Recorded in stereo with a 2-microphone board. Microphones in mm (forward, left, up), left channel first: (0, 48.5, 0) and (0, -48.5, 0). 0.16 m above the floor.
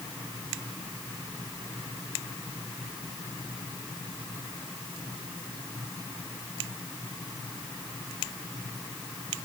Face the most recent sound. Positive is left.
No sound to turn to.